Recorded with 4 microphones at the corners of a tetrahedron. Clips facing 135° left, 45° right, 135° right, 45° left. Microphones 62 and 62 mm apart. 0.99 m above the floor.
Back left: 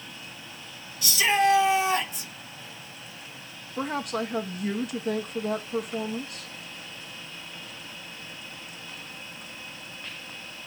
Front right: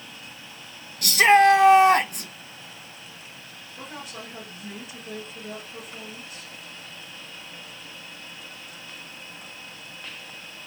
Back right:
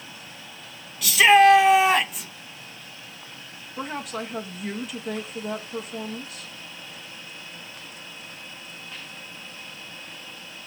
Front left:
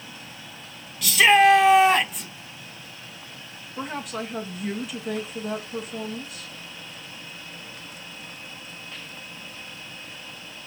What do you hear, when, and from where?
1.0 s a shout: 45° right, 1.4 m
3.8 s a woman speaking: 135° left, 1.5 m